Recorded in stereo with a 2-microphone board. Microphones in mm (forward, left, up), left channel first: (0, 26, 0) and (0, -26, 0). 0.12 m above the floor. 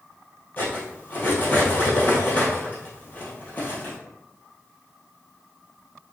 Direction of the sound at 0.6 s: 35° left (ahead or behind).